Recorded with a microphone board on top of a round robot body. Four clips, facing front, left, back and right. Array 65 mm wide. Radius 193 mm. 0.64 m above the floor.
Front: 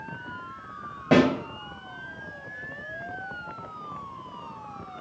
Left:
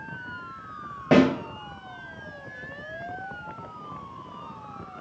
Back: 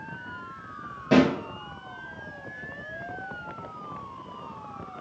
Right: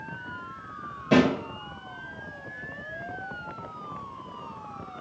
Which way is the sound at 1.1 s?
65° left.